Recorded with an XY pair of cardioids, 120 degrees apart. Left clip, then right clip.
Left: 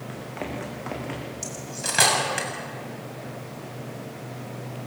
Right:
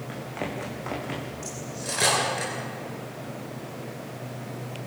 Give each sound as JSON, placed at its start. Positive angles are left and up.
{"t": 0.1, "sound": "running footsteps", "azimuth_deg": 0, "distance_m": 5.5}
{"t": 1.4, "sound": "cutlery clinking", "azimuth_deg": 60, "distance_m": 7.0}